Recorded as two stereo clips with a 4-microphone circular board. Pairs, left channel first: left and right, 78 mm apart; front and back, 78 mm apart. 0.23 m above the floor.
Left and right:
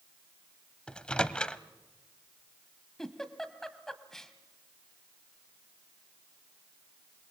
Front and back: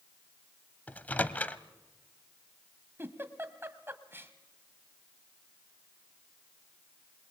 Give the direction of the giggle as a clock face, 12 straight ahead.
6 o'clock.